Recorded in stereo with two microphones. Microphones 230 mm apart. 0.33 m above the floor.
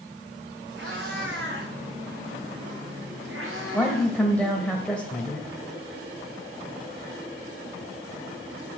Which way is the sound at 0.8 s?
55° right (ahead or behind).